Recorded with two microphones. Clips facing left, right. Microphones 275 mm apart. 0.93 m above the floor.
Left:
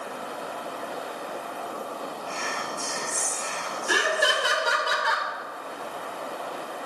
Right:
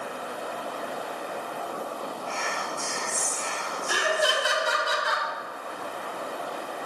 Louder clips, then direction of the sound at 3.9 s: Left 1 dB; 75° left (ahead or behind).